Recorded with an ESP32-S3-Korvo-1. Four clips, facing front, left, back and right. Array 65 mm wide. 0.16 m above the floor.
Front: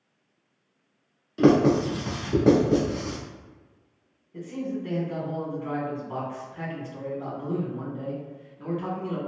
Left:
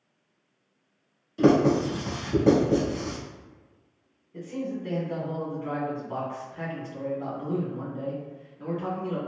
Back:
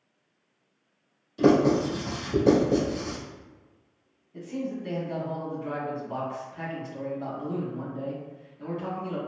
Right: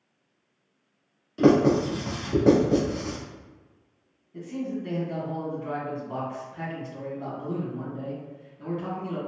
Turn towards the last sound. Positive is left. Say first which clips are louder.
# right 1 dB, front 1 dB
turn(degrees=25)